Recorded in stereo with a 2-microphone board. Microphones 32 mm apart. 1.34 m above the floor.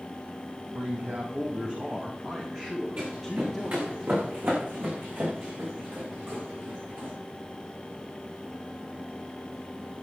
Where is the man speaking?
55° right (ahead or behind), 2.5 m; by 4.0 s 5° left (ahead or behind), 3 m.